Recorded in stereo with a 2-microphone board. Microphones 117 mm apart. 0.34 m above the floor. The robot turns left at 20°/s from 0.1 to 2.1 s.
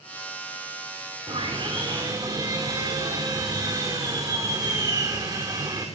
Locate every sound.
1.3 s sawing: 50° right (ahead or behind), 6 m; by 5.9 s 30° right (ahead or behind), 6 m